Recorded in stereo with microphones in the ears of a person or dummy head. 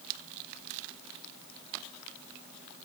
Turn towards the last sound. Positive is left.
No sound to turn to.